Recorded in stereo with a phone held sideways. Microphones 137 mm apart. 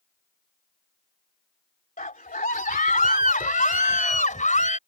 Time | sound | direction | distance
2.0 | a scream | 80° left | ?